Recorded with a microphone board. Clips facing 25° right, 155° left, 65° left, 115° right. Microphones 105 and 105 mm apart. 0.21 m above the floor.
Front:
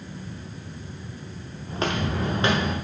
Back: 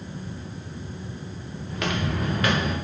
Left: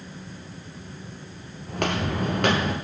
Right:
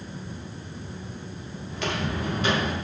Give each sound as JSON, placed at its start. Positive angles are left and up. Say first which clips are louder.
{"t": 1.7, "sound": "footsteps", "louder": "front 1 dB, left 3 dB", "azimuth_deg": 35, "distance_m": 2.0}